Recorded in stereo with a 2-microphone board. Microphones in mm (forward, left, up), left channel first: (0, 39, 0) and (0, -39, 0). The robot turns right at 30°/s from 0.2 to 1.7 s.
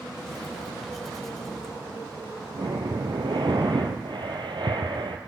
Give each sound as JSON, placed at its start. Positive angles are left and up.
{"t": 2.5, "sound": "breathing", "side_deg": -70, "distance_m": 3.0}